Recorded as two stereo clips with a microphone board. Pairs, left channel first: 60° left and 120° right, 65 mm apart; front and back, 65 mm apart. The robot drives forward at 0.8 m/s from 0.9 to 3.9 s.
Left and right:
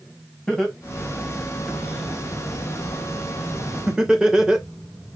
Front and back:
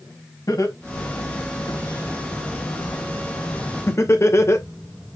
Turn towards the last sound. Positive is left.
turn(degrees=-40)